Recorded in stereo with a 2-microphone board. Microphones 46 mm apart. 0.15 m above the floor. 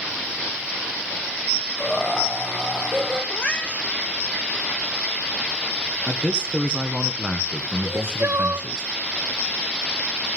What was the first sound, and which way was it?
Laughter, 5° left (ahead or behind).